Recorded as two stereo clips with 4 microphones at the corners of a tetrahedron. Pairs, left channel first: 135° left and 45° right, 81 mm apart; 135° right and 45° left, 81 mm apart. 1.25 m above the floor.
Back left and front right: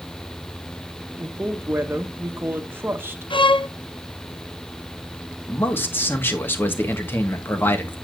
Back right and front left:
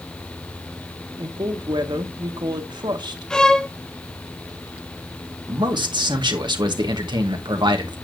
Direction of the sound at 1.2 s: 20° left.